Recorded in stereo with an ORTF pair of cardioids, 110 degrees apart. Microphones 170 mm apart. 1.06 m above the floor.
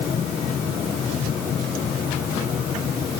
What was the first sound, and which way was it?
Only background noise.